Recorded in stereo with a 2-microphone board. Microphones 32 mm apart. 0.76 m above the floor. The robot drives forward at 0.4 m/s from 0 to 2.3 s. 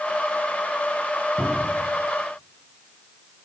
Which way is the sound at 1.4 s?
40° right (ahead or behind).